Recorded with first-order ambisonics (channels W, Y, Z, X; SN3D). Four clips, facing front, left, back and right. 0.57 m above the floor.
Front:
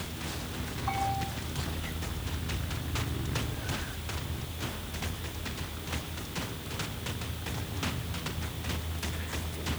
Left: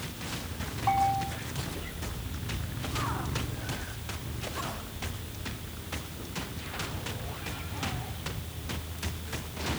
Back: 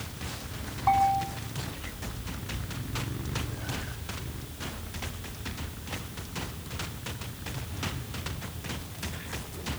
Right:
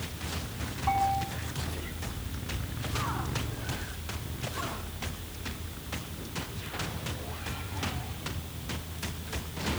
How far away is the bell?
About 5 m.